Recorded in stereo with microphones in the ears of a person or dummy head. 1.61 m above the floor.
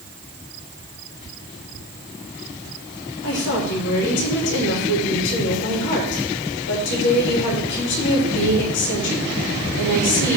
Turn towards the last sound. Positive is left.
turn(degrees=65)  # may be behind; listen again after turning